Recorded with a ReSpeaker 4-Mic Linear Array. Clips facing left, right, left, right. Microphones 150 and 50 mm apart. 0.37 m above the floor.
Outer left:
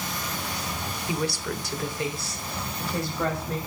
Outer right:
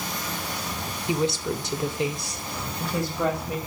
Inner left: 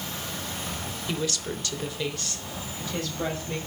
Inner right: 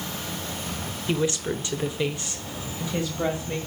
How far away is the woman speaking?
About 0.9 m.